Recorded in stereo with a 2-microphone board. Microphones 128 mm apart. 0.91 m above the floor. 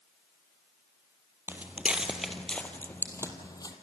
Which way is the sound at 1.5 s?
15° right (ahead or behind).